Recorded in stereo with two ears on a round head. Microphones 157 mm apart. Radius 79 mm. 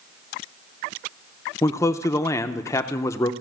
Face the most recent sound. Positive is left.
turn(degrees=20)  # may be behind; listen again after turning